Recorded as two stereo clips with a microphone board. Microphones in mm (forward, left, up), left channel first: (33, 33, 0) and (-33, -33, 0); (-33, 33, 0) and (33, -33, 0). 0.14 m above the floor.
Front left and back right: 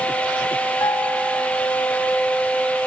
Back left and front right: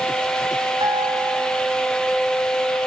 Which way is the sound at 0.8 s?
10° right.